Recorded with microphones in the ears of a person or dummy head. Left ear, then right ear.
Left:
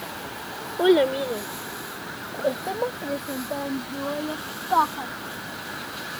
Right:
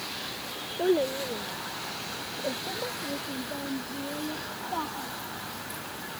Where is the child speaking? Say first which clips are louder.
Left 7 dB; 60° left (ahead or behind); by 5.1 s 45° left (ahead or behind).